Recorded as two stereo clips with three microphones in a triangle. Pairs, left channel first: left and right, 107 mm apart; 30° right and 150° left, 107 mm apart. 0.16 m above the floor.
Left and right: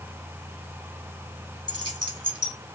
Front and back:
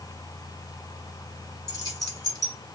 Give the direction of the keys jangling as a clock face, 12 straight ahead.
2 o'clock.